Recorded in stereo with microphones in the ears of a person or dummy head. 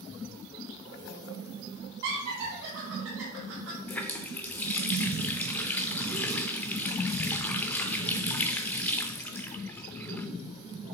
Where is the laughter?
75° right (ahead or behind), 3 m; by 3.8 s 65° right (ahead or behind), 2 m.